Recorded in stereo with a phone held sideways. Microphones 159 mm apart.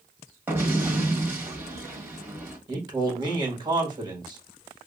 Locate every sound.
0.5 s an explosion: 10° right (ahead or behind), 1.2 m
2.7 s a man speaking: 25° right (ahead or behind), 1.5 m